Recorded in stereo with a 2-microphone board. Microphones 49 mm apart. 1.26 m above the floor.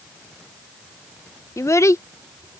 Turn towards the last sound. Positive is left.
turn(degrees=80)